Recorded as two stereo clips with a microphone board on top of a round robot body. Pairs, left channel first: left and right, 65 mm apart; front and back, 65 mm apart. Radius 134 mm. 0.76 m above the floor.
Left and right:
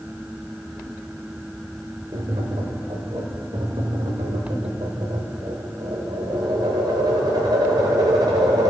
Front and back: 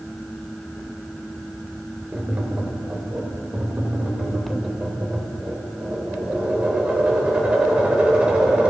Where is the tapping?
110° right, 0.6 m.